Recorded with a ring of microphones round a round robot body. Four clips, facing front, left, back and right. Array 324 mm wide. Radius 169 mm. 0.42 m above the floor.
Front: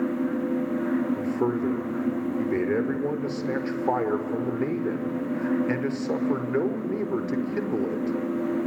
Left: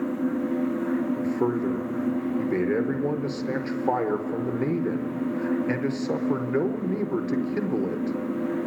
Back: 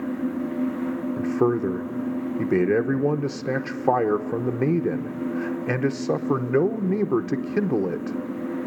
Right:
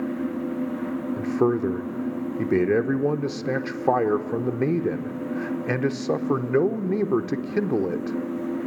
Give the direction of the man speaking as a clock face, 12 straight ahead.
5 o'clock.